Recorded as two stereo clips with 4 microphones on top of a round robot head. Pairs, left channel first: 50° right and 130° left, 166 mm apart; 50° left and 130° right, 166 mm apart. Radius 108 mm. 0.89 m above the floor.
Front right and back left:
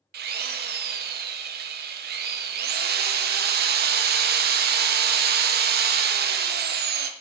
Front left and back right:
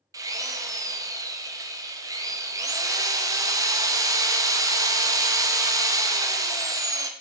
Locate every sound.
0.1 s a drill: 160° left, 0.5 m